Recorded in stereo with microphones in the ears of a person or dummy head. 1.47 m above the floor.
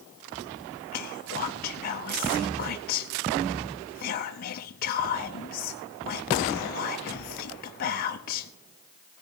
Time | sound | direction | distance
0.9 | whispering | 40° left (ahead or behind) | 0.6 m